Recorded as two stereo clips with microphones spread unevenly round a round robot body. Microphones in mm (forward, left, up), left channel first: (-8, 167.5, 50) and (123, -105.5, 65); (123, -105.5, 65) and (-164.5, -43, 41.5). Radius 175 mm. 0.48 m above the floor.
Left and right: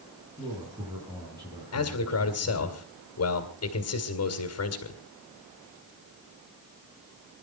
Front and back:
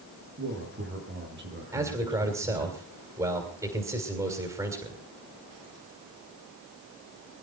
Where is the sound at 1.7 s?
90° left, 2.5 m.